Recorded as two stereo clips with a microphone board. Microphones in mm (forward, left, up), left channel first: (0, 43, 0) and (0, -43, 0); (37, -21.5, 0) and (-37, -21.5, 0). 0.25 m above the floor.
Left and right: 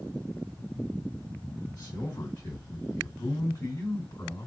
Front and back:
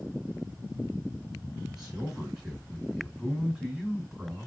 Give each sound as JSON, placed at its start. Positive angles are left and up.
{"t": 1.7, "sound": "a man speaking", "azimuth_deg": 100, "distance_m": 2.0}